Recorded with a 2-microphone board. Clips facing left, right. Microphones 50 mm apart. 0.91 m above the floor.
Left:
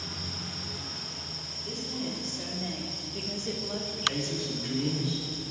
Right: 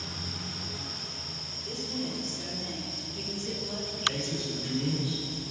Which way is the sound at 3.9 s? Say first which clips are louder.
Even; 25° left (ahead or behind).